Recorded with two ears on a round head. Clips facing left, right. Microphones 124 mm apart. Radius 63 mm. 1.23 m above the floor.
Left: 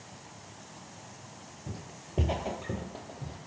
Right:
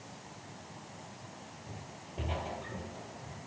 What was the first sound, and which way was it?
Footsteps, 35° left (ahead or behind).